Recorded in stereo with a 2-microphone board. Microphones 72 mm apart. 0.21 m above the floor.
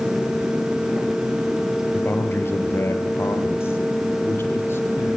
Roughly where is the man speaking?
Left.